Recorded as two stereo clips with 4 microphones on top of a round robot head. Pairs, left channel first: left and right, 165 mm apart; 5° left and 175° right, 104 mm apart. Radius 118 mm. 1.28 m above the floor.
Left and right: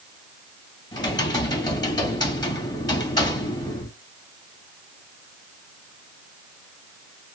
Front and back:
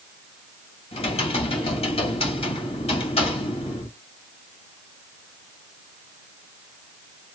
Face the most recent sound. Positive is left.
turn(degrees=25)